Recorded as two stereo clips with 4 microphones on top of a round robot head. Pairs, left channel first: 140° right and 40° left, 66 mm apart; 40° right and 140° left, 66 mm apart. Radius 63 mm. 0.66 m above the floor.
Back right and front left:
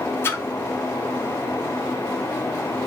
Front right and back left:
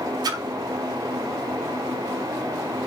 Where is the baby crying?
I don't hear a baby crying.